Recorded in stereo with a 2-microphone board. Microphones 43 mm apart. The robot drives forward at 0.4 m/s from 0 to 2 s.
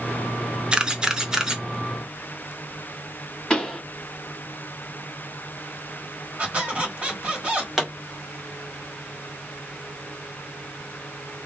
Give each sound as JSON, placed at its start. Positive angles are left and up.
{"t": 0.7, "sound": "a camera shutter", "side_deg": -20, "distance_m": 0.5}
{"t": 3.5, "sound": "a pop", "side_deg": 15, "distance_m": 1.6}
{"t": 6.4, "sound": "a squeak", "side_deg": -30, "distance_m": 1.4}
{"t": 7.8, "sound": "a pop", "side_deg": -5, "distance_m": 1.4}